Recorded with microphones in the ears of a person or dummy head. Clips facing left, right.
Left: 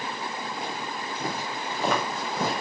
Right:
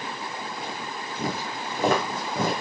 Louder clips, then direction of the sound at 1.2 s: Right 3 dB; 40° right (ahead or behind).